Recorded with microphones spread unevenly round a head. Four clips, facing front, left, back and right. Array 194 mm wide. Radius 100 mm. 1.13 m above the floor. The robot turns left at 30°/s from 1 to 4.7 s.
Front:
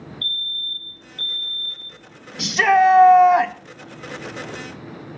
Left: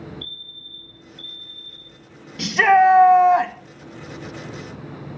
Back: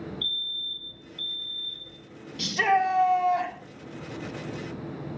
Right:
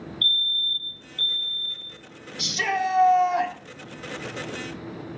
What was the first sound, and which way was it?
A fire alarm, 155° left.